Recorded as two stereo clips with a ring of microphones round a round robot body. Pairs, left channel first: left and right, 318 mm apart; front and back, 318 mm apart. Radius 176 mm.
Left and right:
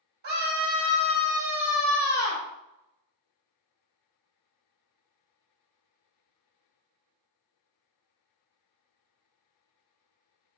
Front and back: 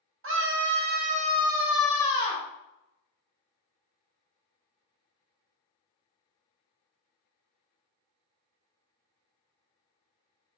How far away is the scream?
About 1.3 m.